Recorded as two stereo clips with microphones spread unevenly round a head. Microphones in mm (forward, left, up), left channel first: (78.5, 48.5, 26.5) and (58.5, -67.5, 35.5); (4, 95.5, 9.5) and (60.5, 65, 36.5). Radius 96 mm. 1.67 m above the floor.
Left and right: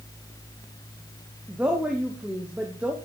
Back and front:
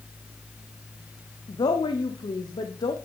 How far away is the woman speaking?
About 1.1 m.